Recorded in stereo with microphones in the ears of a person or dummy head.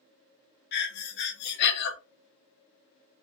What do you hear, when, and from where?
0.7 s breathing: 60° left (ahead or behind), 0.9 m